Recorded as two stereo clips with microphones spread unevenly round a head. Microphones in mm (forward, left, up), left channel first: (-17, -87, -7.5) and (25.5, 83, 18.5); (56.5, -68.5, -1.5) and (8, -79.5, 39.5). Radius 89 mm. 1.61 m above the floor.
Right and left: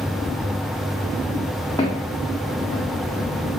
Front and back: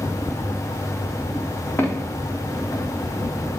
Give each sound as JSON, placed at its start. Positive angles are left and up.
{"t": 1.8, "sound": "footsteps", "azimuth_deg": -30, "distance_m": 5.5}